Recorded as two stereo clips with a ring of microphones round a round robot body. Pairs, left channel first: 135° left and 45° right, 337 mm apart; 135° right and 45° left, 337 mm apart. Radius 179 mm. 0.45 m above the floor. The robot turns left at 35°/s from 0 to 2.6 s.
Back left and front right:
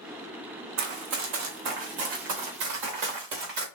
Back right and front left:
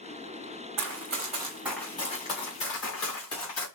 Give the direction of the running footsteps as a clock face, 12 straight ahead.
12 o'clock.